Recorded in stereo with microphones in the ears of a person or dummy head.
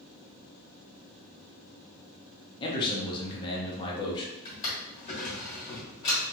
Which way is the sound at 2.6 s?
25° left (ahead or behind).